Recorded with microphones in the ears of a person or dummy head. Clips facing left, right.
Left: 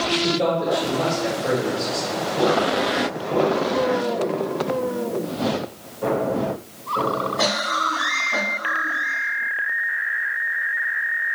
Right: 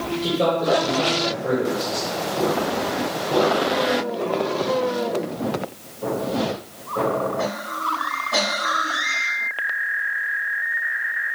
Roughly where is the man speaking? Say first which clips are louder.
Right 2 dB; centre.